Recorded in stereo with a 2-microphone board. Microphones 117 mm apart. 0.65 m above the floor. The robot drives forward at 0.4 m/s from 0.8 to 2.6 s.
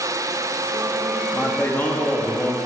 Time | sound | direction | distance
1.3 | a man speaking | 20° left (ahead or behind) | 1.0 m